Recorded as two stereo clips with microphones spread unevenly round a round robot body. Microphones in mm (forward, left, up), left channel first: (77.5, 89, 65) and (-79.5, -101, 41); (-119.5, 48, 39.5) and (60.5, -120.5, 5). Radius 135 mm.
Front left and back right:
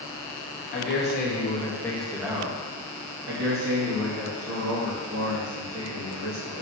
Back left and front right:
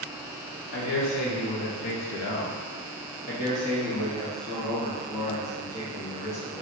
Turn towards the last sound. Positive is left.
turn(degrees=-140)